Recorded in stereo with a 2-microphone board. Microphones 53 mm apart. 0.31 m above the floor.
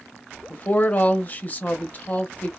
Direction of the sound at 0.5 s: 35° left (ahead or behind).